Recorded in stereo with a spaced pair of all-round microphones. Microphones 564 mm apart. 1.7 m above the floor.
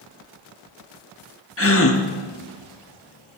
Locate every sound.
1.6 s a gasp: 25° left (ahead or behind), 0.8 m